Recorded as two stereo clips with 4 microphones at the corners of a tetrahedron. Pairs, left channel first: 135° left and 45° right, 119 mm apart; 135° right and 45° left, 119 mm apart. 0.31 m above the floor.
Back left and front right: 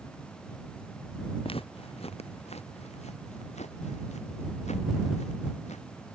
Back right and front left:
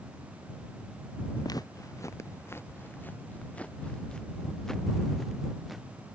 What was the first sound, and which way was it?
Footsteps, 170° left.